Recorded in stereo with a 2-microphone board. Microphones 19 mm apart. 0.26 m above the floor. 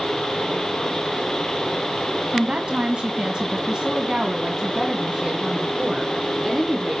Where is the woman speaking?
50° right (ahead or behind), 1.9 m; by 7.0 s centre (ahead or behind), 3 m.